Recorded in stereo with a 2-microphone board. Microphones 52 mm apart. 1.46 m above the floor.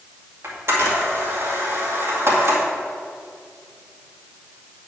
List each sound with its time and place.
0.4 s a camera shutter: 50° right (ahead or behind), 2 m